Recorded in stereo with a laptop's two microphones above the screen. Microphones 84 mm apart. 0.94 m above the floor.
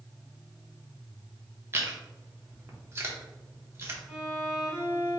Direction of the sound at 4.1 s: 10° right (ahead or behind).